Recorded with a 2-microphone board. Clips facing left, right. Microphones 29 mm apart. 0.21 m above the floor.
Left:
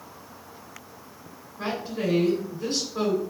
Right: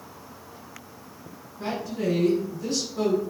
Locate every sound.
1.6 s a woman speaking: 50° left (ahead or behind), 1.8 m